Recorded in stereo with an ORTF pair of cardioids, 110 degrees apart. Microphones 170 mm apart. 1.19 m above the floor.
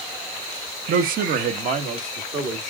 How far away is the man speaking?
About 1.0 m.